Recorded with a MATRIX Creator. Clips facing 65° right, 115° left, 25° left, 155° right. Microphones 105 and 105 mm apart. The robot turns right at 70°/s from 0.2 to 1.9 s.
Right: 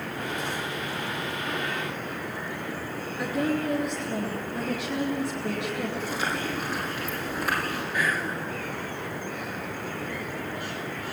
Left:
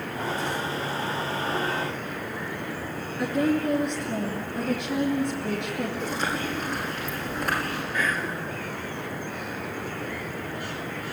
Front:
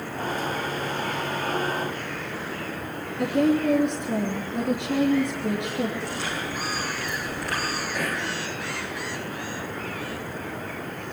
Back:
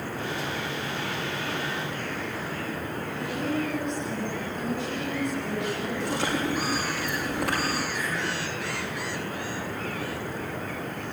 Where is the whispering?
15° left, 5 m.